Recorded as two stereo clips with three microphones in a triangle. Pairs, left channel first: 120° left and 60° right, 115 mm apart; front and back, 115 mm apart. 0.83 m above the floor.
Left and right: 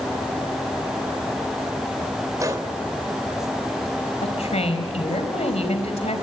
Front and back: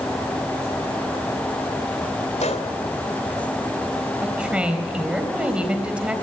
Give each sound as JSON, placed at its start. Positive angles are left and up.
{"t": 2.4, "sound": "a gunshot", "azimuth_deg": 0, "distance_m": 3.0}
{"t": 4.2, "sound": "a woman speaking", "azimuth_deg": 100, "distance_m": 3.5}